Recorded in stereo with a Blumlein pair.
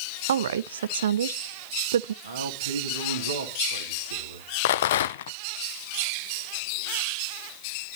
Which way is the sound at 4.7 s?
60° left.